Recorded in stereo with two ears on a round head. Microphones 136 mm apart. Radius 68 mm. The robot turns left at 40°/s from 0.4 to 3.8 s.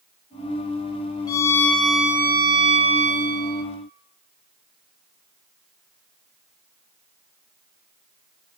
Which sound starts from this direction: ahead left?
A violin, at 1.3 s.